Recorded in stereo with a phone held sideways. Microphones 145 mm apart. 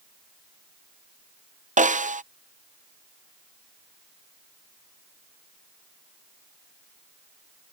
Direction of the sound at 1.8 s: 60° right (ahead or behind).